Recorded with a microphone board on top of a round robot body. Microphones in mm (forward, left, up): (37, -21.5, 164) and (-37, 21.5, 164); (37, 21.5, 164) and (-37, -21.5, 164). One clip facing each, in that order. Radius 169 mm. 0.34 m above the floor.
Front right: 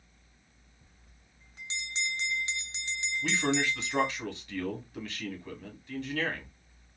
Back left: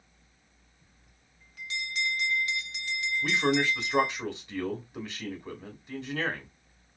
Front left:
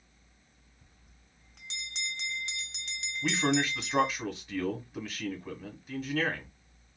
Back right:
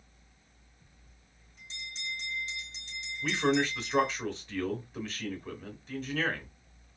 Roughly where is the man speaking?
Left.